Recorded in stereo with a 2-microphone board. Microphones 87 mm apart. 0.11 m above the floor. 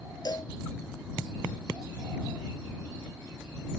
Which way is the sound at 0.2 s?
50° left (ahead or behind).